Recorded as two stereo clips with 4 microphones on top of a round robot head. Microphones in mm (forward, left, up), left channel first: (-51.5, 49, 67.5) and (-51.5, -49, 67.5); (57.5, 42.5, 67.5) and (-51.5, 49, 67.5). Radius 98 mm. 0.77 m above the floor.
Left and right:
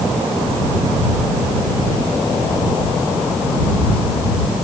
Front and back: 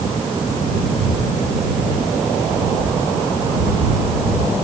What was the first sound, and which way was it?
Only background noise.